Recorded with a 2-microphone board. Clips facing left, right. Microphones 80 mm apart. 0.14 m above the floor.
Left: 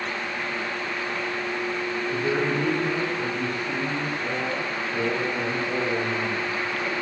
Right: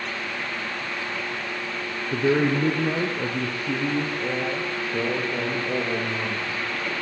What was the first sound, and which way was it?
A man speaking, 40° right (ahead or behind).